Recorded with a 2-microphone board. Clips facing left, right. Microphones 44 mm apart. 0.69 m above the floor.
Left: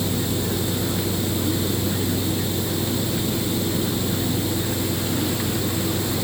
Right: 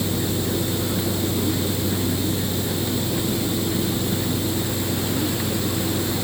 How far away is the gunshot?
I don't hear a gunshot.